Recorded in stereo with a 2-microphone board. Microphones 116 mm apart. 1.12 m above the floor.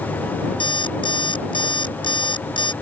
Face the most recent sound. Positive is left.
turn(degrees=45)  # may be behind; listen again after turning